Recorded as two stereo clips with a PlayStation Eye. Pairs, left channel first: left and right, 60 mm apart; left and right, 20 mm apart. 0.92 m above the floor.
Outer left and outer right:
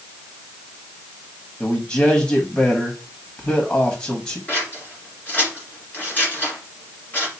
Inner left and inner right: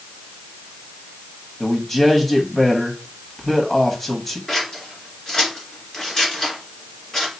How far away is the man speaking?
About 1.0 m.